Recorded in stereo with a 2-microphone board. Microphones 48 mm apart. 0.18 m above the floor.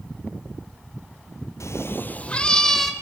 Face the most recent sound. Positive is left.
turn(degrees=5)  # may be behind; listen again after turning